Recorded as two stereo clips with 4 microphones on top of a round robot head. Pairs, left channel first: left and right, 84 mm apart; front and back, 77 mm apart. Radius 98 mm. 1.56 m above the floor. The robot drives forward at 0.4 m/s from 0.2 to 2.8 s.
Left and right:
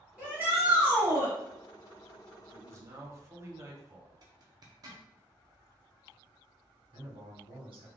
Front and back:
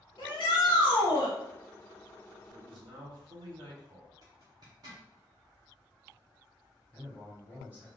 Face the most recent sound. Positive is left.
turn(degrees=-110)